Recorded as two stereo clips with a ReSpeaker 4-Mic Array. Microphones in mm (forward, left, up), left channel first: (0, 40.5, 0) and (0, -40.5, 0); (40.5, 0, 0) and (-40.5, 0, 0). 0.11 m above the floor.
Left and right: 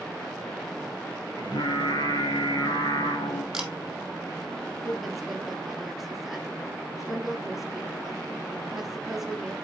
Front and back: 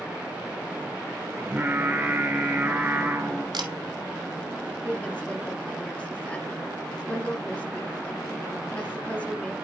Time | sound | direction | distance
1.4 | singing | 110° left | 2.0 m
3.5 | a camera shutter | 170° right | 1.3 m
4.8 | a woman speaking | 10° right | 1.5 m